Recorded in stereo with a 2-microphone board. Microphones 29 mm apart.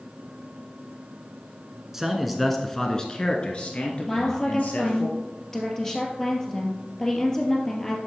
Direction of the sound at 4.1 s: 15° left (ahead or behind).